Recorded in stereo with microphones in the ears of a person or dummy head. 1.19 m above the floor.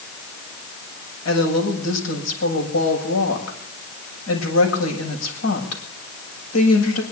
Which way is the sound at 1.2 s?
85° left.